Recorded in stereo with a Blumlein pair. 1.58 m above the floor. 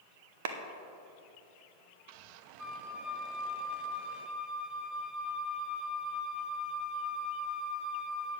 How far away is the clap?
About 1.0 m.